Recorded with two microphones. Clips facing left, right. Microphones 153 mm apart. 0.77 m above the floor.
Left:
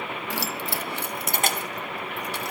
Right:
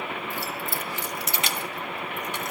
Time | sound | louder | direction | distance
0.3 | keys jangling | left 2 dB | 80° left | 0.5 m